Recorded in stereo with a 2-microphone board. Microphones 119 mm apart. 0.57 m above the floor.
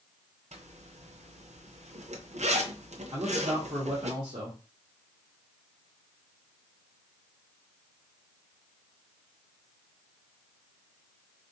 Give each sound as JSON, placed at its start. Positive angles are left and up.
{"t": 0.5, "sound": "a zipper", "side_deg": -70, "distance_m": 0.5}
{"t": 3.1, "sound": "a man speaking", "side_deg": -45, "distance_m": 1.0}